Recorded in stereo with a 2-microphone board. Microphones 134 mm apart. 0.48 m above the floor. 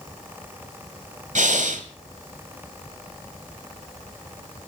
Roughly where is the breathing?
Right.